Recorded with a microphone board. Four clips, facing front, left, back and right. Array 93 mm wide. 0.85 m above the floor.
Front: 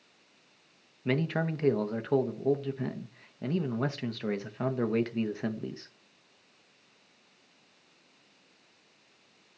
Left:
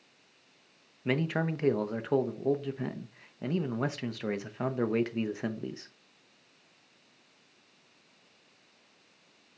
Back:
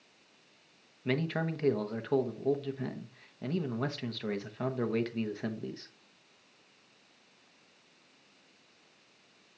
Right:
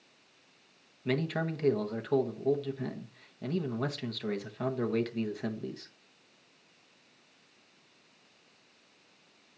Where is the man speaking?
70° left, 0.7 m.